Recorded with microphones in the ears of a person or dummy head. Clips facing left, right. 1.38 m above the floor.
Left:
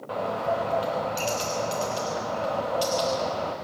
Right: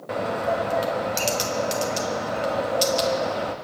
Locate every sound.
0.1 s a bird: 30° right (ahead or behind), 1.0 m